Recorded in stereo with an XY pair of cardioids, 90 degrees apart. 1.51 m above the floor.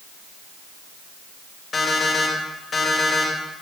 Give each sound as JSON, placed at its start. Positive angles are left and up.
{"t": 1.7, "sound": "an alarm clock", "azimuth_deg": 45, "distance_m": 3.5}